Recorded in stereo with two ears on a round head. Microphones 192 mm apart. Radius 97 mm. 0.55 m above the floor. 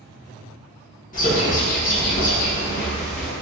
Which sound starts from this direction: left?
A bird, at 1.1 s.